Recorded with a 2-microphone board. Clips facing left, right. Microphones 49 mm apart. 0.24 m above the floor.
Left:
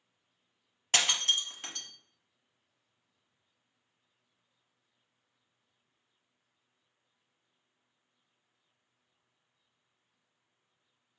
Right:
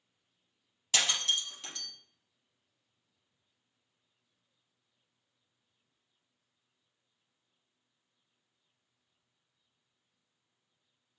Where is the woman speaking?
I don't hear a woman speaking.